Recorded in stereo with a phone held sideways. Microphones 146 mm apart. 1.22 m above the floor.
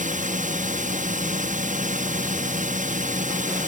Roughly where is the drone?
Right.